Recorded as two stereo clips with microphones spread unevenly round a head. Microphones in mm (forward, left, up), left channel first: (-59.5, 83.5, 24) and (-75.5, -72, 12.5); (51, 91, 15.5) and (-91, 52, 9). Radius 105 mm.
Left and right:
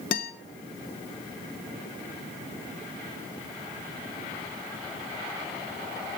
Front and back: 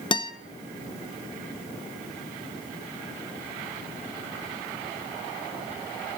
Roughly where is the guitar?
Ahead left.